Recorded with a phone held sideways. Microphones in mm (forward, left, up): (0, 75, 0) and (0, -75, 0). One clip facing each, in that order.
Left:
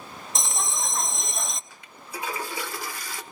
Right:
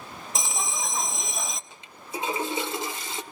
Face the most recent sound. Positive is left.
turn(degrees=-25)  # may be behind; listen again after turning